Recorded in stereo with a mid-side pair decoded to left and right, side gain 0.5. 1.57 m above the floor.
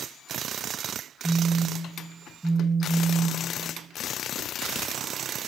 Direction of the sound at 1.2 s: 15° right.